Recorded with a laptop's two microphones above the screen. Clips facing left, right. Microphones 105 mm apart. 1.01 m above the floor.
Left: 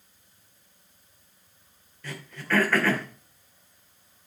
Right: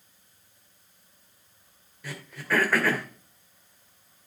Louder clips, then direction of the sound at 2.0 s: Even; 10° right (ahead or behind).